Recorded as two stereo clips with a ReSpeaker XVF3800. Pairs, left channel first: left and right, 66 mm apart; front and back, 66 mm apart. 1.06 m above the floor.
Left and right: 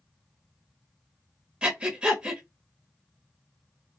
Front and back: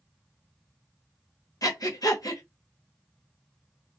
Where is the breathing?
20° right, 0.8 m.